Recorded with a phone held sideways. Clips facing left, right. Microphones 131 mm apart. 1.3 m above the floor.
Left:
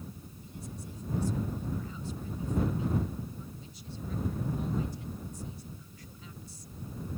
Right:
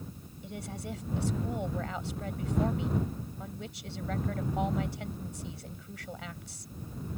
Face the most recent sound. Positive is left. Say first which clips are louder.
# right 6 dB
turn(degrees=-80)